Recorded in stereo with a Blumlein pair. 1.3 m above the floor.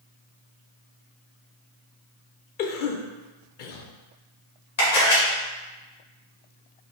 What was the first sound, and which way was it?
A cough, 45° left.